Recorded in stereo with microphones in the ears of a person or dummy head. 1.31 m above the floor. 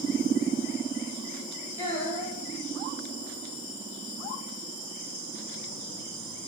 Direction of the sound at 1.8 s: 40° left (ahead or behind).